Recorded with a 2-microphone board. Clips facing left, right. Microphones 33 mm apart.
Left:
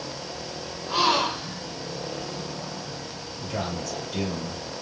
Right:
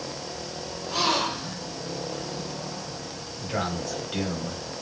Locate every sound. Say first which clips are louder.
0.9 s a gasp: left 3 dB; 25° left (ahead or behind), 1.7 m
3.4 s a man speaking: right 2 dB; 45° right (ahead or behind), 1.5 m